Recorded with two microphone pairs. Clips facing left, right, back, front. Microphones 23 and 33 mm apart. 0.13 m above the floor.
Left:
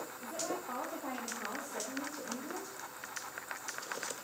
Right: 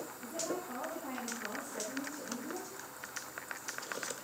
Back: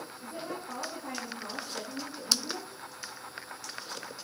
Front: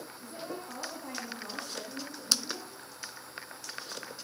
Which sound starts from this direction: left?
A woman speaking, at 0.2 s.